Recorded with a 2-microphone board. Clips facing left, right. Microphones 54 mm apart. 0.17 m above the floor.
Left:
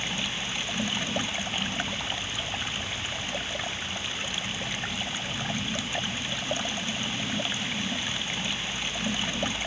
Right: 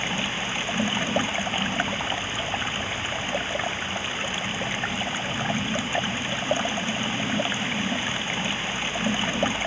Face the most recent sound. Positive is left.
turn(degrees=-25)  # may be behind; listen again after turning